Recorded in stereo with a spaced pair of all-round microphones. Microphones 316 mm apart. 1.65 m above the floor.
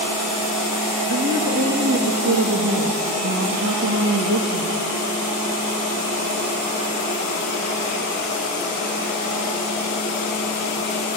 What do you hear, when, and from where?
1.1 s a woman speaking: 60° right (ahead or behind), 2.5 m